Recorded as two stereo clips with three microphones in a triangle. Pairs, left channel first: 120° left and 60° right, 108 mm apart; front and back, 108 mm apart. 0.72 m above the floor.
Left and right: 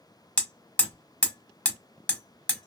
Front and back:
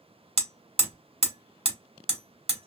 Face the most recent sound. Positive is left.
turn(degrees=-160)